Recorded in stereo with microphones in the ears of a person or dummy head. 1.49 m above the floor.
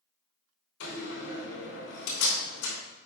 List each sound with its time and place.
0.8 s a door slam: 80° left, 3 m